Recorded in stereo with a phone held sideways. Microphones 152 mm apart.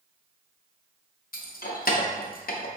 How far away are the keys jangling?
About 0.5 m.